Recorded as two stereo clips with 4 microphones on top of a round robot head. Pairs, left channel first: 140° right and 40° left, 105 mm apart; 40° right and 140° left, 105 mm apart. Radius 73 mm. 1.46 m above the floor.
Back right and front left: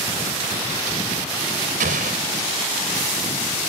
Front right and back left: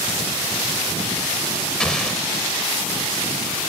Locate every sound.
1.8 s an explosion: 45° left